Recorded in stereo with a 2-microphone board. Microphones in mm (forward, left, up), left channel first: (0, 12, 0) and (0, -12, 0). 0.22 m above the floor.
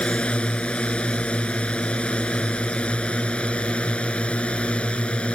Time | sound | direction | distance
0.0 | a drone | 60° left (ahead or behind) | ?